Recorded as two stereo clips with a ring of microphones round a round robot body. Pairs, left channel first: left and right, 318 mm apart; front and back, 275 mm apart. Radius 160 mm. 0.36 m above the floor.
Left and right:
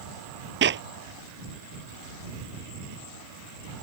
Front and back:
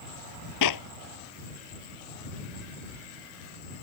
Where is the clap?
35° right.